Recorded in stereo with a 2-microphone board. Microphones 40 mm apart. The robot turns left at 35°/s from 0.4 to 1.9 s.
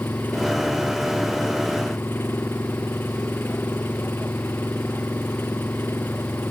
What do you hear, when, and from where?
0.0 s an engine running: 120° left; by 6.5 s 65° left